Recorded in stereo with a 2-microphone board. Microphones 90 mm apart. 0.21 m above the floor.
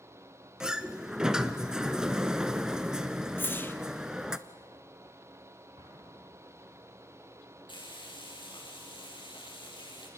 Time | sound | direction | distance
0.6 | a sliding door | 10° right (ahead or behind) | 0.8 m
3.4 | a whoosh | 25° left (ahead or behind) | 1.1 m
5.8 | an explosion | 85° right | 6 m
7.7 | frying | 60° left (ahead or behind) | 5.5 m